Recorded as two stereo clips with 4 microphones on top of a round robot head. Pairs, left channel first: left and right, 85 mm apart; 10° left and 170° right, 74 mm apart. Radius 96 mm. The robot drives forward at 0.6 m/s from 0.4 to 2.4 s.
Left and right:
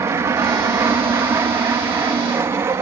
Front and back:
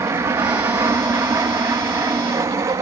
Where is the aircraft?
135° right; by 2.8 s 140° right.